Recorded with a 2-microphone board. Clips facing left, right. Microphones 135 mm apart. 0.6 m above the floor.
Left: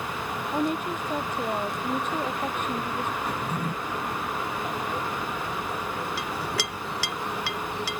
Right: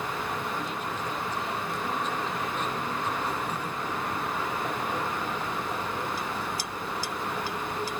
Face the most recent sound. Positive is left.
turn(degrees=85)